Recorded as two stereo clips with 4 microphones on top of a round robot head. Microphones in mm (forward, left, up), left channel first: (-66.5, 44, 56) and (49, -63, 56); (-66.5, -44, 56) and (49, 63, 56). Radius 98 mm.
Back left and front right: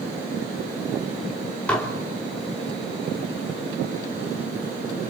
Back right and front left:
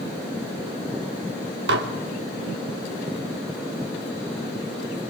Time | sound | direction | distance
1.7 | dishes clattering | 55° left | 2.5 m